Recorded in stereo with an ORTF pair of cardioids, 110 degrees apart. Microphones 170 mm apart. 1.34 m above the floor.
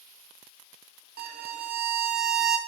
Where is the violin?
65° right, 1.2 m.